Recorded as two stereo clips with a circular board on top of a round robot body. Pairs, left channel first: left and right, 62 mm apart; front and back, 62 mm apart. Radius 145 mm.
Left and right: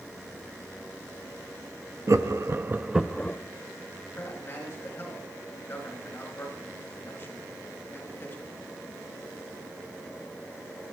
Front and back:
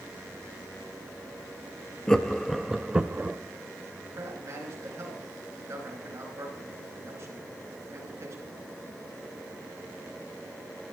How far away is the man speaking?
About 4.5 m.